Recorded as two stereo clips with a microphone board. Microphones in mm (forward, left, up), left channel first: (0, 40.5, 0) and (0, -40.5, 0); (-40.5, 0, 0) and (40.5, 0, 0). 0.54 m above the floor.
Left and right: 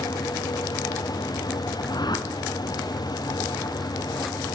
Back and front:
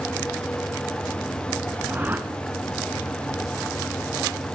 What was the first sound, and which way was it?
A whoosh, 65° left.